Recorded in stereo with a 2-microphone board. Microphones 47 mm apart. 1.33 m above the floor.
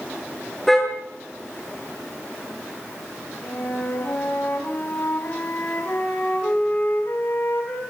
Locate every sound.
0.7 s a car horn: centre (ahead or behind), 10 m
3.4 s a flute: 45° left (ahead or behind), 6.5 m